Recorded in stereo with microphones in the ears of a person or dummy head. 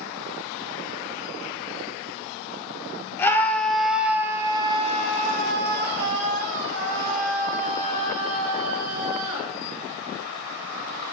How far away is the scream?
About 1.3 m.